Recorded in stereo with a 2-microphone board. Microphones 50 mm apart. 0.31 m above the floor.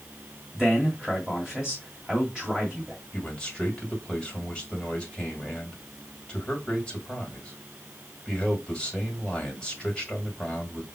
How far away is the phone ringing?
No phone ringing in this recording.